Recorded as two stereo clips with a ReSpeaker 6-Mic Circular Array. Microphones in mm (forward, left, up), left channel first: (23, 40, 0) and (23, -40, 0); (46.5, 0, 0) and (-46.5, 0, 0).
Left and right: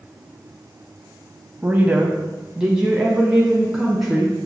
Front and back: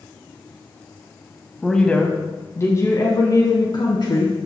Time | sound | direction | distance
1.6 | a woman speaking | 85° right | 1.0 m